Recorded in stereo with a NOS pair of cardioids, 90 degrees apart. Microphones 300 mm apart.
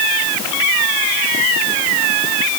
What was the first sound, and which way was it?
Only background noise.